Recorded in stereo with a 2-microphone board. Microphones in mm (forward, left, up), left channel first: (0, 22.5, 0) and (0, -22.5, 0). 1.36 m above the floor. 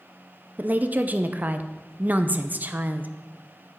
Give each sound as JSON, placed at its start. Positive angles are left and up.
{"t": 0.6, "sound": "a woman speaking", "side_deg": -40, "distance_m": 0.9}